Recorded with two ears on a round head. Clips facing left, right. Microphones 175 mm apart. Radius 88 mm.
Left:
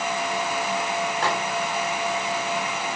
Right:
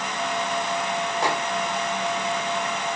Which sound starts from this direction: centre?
A microwave, at 1.2 s.